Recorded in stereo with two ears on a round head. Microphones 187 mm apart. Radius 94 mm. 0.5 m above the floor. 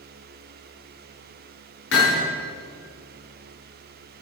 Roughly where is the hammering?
Left.